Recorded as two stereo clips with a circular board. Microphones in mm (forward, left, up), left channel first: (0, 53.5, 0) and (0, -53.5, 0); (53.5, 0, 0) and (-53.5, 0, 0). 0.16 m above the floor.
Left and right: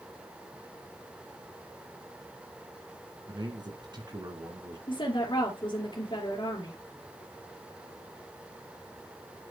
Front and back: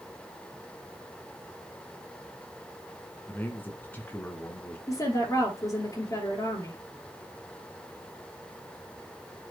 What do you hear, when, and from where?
3.3 s a man speaking: 65° right, 2 m
4.9 s a woman speaking: 55° left, 3 m